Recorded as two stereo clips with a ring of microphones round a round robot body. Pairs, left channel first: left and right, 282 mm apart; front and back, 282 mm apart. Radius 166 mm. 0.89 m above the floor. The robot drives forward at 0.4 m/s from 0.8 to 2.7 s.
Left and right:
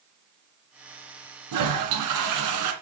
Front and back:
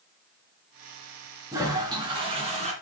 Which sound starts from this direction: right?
A toilet flushing, at 1.5 s.